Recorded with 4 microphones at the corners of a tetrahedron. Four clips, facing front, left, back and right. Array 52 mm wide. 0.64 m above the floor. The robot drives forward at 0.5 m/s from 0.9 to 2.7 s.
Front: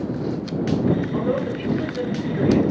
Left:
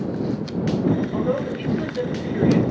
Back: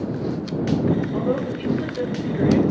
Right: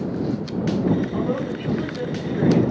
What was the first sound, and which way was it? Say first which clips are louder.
A woman speaking: left 1 dB, even; 60° left.